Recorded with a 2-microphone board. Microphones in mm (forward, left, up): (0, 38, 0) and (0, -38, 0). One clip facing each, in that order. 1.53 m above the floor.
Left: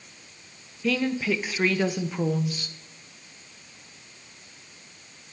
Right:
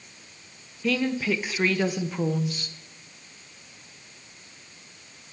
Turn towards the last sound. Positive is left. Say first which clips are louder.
# even
turn(degrees=0)  # may be behind; listen again after turning